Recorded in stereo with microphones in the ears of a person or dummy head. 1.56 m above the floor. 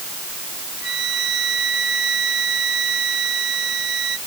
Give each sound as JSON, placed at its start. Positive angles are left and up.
{"t": 0.8, "sound": "a flute", "side_deg": -80}